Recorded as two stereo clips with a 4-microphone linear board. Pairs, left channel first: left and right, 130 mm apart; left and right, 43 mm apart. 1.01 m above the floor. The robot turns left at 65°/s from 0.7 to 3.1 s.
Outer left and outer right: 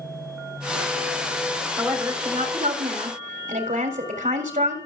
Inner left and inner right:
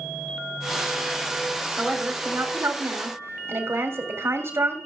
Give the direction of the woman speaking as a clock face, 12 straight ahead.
12 o'clock.